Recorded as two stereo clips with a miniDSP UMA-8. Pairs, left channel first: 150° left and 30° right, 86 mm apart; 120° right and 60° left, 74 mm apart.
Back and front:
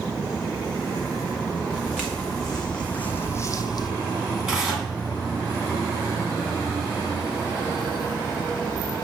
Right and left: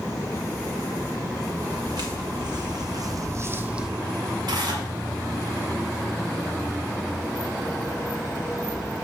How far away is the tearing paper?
About 1.9 m.